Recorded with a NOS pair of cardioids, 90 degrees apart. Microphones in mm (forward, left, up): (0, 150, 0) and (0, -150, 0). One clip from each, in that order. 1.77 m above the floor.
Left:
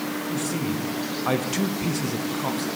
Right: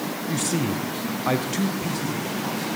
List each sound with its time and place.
0.3 s a man speaking: 35° right, 1.1 m; by 2.7 s 45° left, 1.3 m